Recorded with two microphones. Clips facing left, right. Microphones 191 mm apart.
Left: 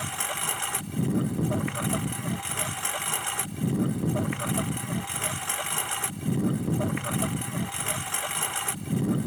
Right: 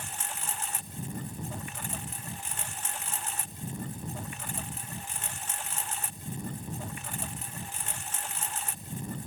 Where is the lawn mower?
80° left.